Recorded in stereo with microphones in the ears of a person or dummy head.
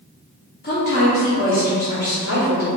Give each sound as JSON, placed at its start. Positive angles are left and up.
{"t": 0.6, "sound": "a woman speaking", "side_deg": 45, "distance_m": 0.6}